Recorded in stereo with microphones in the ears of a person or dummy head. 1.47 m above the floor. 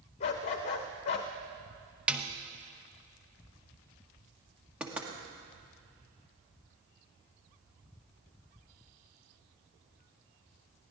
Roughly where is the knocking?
Centre.